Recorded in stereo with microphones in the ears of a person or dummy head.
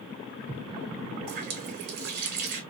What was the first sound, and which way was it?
A running tap, 50° right (ahead or behind).